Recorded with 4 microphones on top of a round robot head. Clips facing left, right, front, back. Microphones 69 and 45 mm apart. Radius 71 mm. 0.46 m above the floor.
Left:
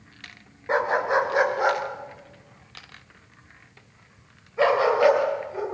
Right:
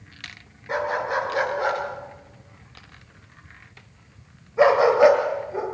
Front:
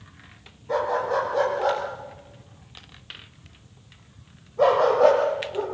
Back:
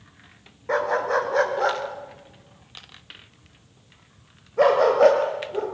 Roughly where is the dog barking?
Behind left.